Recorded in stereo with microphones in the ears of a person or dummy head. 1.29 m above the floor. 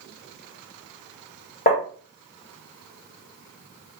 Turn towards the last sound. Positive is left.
turn(degrees=35)  # may be behind; listen again after turning